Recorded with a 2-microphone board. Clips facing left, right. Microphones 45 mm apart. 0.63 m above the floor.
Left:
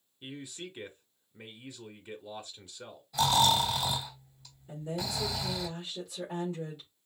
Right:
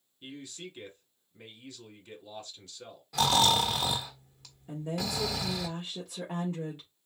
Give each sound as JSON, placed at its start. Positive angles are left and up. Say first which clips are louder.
{"t": 0.2, "sound": "a man speaking", "louder": "left 1 dB", "side_deg": 15, "distance_m": 1.3}
{"t": 3.1, "sound": "snoring", "louder": "even", "side_deg": -65, "distance_m": 1.3}
{"t": 4.7, "sound": "a woman speaking", "louder": "right 2 dB", "side_deg": -40, "distance_m": 1.7}